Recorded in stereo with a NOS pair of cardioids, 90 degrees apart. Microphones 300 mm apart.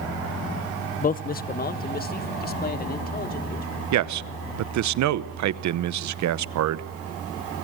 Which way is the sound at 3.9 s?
70° right.